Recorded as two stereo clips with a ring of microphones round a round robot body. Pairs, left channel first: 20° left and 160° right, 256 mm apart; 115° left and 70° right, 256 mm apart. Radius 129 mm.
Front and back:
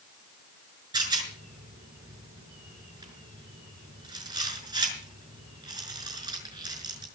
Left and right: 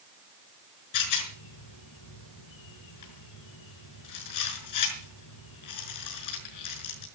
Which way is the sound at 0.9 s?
125° left.